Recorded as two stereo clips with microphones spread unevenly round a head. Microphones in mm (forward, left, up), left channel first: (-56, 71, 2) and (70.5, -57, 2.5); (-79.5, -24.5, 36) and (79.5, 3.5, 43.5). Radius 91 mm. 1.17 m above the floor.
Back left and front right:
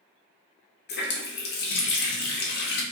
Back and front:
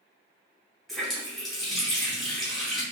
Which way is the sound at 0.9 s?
100° left.